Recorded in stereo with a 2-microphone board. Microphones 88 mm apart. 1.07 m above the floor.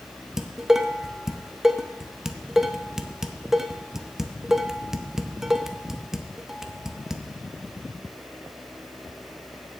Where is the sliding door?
I don't hear a sliding door.